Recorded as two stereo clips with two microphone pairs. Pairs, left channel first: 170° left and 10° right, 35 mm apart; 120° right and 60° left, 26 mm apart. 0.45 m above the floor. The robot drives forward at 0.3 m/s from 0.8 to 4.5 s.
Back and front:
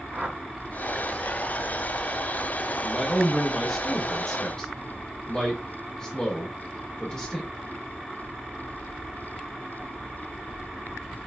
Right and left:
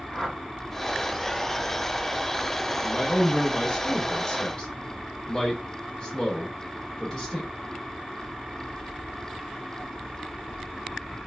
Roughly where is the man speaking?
Ahead right.